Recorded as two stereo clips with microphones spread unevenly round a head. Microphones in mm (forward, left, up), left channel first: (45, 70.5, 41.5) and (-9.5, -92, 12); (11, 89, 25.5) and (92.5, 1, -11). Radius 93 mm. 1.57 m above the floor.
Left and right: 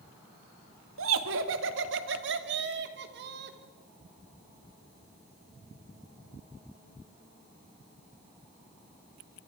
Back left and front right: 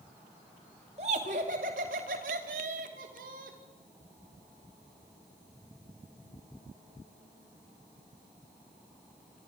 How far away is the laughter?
About 2 m.